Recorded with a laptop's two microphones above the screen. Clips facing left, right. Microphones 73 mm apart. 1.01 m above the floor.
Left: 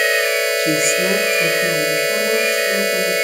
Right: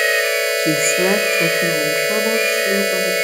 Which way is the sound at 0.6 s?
30° right (ahead or behind).